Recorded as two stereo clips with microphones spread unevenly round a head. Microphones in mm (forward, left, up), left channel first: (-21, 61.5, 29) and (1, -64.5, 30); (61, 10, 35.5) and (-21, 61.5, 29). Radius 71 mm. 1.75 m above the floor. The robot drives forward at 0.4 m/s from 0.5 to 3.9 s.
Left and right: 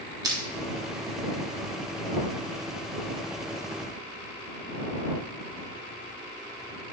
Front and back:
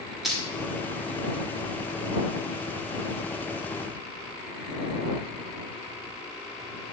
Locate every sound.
0.2 s crushing: 120° right, 0.9 m